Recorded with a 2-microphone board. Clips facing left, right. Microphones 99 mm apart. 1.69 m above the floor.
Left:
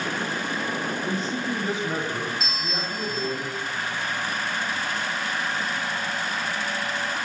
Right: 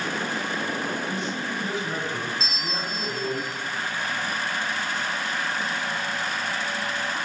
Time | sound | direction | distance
1.0 | a man speaking | 40° left (ahead or behind) | 0.7 m
2.4 | a bell | 55° left (ahead or behind) | 0.6 m